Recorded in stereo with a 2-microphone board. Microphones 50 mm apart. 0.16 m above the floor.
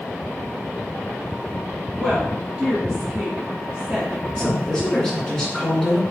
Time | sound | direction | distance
1.9 | a woman speaking | 15° right (ahead or behind) | 1.3 m
4.4 | a woman speaking | 15° left (ahead or behind) | 1.7 m